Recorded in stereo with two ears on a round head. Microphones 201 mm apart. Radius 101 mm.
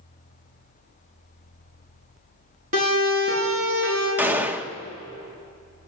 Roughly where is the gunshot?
Centre.